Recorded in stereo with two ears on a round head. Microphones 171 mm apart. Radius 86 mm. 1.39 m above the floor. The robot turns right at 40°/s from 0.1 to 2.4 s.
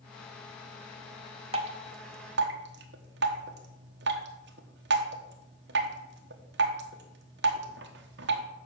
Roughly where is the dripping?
Right.